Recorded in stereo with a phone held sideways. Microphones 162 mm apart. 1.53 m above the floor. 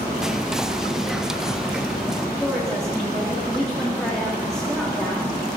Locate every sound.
0.2 s whispering: 5° right (ahead or behind), 0.5 m
2.4 s a woman speaking: 5° left (ahead or behind), 2.5 m